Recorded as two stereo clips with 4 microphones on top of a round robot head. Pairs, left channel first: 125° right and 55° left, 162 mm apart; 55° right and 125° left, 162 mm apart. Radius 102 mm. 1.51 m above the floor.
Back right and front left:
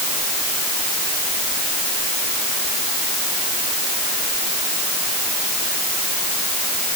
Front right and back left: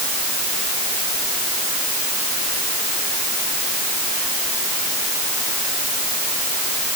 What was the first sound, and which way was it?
Only background noise.